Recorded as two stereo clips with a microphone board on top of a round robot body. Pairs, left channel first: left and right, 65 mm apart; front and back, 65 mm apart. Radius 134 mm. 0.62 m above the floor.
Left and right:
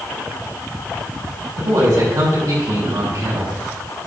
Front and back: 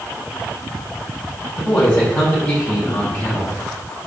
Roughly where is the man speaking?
Right.